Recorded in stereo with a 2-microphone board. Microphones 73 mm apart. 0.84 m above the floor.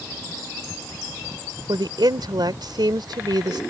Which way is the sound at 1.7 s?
80° right.